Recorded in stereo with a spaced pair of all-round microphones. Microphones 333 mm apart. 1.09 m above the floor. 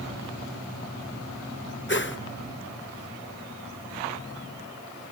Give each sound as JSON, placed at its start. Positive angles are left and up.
{"t": 1.9, "sound": "a whoosh", "side_deg": 35, "distance_m": 0.9}